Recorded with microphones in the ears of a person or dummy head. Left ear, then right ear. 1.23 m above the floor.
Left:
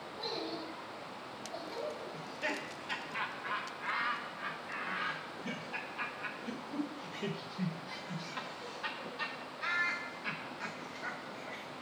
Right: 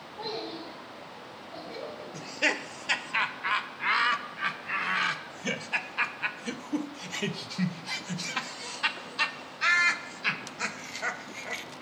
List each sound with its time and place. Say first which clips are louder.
0.2 s a child speaking: right 4 dB; 25° left (ahead or behind), 3.5 m; by 2.0 s centre (ahead or behind), 4 m
2.1 s laughter: right 13 dB; 80° right, 0.6 m